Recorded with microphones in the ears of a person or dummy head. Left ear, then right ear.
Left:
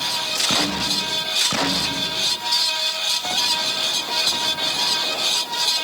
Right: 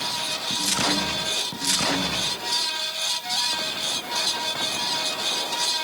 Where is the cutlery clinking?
No cutlery clinking in this recording.